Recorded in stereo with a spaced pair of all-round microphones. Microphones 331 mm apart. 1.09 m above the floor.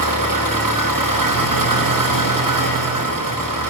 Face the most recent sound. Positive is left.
turn(degrees=-75)  # may be behind; listen again after turning